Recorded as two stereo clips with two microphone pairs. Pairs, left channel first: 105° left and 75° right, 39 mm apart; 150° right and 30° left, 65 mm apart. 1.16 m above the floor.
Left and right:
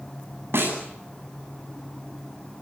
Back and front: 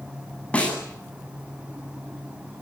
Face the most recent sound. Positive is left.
turn(degrees=-85)